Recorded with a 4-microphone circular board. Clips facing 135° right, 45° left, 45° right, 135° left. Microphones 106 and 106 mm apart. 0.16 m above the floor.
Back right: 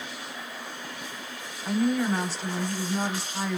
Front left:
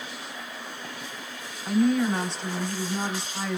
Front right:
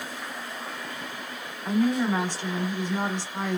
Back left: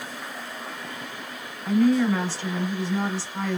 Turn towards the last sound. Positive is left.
turn(degrees=-50)